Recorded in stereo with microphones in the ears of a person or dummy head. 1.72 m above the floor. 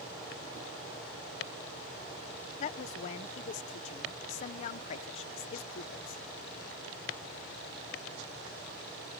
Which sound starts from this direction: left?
A woman speaking, at 2.6 s.